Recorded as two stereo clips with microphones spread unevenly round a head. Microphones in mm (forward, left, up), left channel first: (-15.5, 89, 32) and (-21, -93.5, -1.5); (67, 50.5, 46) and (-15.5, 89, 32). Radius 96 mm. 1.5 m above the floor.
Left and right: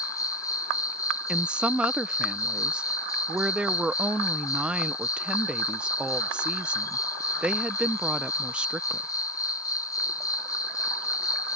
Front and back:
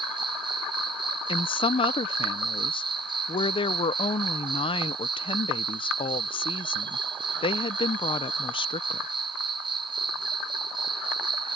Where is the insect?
165° left.